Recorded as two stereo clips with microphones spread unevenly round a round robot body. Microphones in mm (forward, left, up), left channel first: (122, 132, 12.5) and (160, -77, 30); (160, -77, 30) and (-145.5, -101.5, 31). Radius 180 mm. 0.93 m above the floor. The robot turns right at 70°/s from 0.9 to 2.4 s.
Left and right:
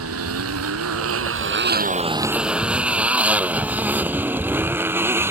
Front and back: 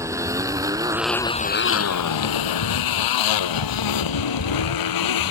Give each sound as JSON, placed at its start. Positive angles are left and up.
{"t": 0.0, "sound": "a motorcycle", "azimuth_deg": -95}